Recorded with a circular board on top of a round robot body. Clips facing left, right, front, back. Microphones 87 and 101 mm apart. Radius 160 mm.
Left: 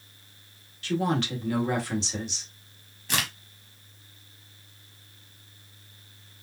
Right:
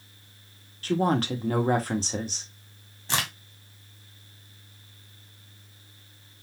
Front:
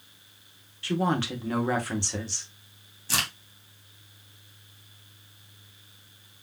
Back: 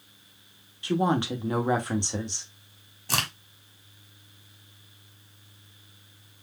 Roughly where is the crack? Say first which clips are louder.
Right 1 dB, back 2 dB; behind right.